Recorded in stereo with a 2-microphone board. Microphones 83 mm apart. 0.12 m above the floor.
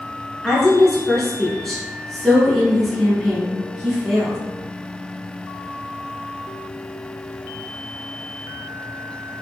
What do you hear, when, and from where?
0.4 s a woman speaking: 5° left (ahead or behind), 1.6 m